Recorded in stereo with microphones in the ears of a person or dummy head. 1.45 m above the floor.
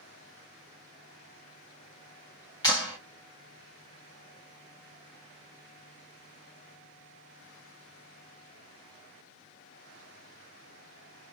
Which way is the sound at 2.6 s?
20° left (ahead or behind).